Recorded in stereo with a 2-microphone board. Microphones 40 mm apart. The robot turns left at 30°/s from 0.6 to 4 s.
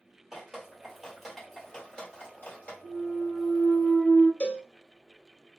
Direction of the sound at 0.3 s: 15° right (ahead or behind).